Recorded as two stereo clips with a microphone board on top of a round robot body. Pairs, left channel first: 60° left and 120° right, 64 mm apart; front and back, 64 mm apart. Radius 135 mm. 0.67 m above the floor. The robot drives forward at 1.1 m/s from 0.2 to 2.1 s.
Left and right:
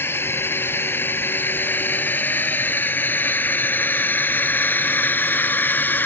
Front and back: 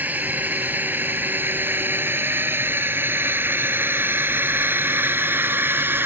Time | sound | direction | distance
0.0 | a drone | 115° left | ?